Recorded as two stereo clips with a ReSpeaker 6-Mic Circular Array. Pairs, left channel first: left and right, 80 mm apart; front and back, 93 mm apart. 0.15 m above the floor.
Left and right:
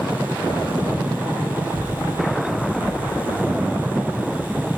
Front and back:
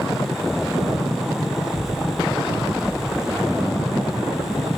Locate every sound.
1.6 s a child speaking: 30° left, 3.5 m; by 4.7 s 25° left, 5 m